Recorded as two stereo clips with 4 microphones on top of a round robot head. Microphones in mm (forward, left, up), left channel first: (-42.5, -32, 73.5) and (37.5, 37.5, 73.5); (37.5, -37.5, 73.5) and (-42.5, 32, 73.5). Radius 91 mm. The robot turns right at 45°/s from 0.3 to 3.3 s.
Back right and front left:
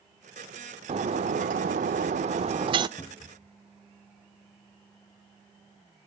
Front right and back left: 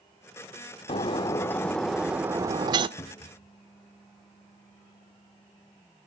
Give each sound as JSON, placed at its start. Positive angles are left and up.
{"t": 0.9, "sound": "breaking glass", "azimuth_deg": 5, "distance_m": 0.6}
{"t": 3.0, "sound": "a cupboard door", "azimuth_deg": -80, "distance_m": 1.0}